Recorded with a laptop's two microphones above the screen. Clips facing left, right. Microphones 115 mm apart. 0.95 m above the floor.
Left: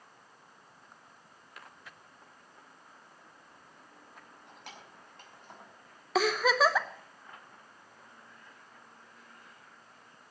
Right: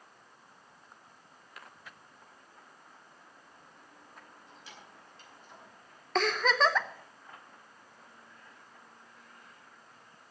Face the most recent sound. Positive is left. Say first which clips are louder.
# left 1 dB
turn(degrees=5)  # may be behind; listen again after turning